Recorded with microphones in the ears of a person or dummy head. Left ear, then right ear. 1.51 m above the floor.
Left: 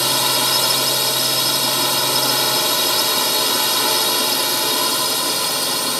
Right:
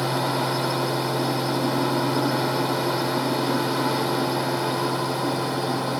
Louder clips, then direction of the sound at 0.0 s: Left 6 dB; 70° left (ahead or behind).